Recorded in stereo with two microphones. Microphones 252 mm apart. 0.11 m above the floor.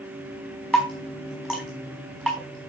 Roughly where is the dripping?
Centre.